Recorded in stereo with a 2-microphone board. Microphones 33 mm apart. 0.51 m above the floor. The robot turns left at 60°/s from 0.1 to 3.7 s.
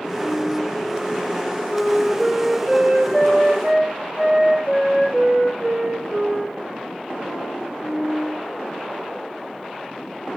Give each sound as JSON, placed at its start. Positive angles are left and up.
{"t": 0.2, "sound": "a flute", "azimuth_deg": 130, "distance_m": 6.5}